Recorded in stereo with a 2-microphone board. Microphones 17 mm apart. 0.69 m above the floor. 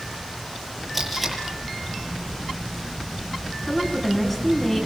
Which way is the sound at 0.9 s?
10° right (ahead or behind).